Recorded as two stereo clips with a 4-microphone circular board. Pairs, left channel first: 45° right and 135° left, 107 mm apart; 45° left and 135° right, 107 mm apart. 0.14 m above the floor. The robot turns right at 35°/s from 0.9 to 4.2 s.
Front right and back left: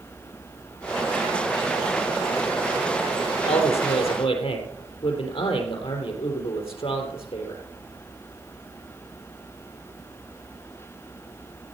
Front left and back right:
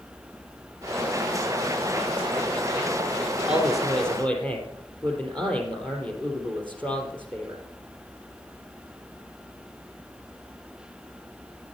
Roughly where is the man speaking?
Ahead right.